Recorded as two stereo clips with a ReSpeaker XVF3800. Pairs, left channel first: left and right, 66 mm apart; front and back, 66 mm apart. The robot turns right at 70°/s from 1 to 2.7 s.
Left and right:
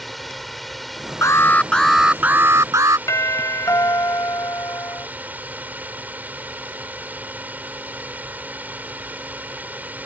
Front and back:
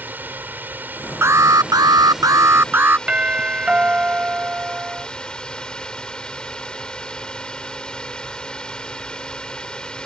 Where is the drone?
Straight behind; by 10.1 s 60° right.